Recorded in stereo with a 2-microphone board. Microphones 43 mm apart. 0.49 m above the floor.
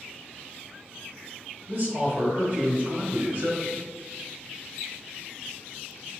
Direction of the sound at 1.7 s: 55° right (ahead or behind).